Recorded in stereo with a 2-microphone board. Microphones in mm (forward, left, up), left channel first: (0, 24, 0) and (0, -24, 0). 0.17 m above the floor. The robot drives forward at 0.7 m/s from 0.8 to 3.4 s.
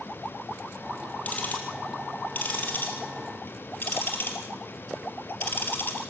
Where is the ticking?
30° left (ahead or behind), 4.5 m; by 6.0 s 45° left (ahead or behind), 3.5 m.